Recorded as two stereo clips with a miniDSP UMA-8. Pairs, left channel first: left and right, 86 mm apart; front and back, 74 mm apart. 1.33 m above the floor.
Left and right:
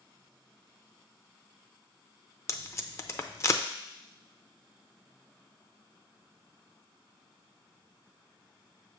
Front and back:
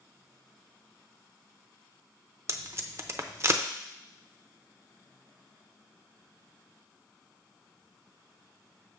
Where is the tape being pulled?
140° left, 0.5 m.